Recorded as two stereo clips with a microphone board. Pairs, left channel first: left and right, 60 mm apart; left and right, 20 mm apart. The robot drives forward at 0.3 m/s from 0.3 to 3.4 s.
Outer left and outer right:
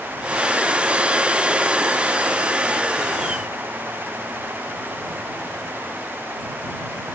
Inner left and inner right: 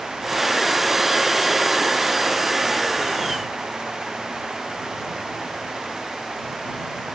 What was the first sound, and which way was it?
Only background noise.